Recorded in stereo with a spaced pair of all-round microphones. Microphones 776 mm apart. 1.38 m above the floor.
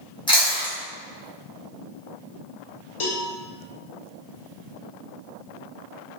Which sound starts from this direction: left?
A cowbell, at 3.0 s.